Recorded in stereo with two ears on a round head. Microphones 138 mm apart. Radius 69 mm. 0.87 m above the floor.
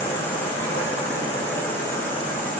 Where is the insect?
15° left (ahead or behind), 2.5 m.